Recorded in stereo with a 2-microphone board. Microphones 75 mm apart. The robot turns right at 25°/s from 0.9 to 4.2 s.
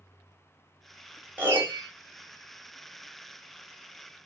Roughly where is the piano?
Right.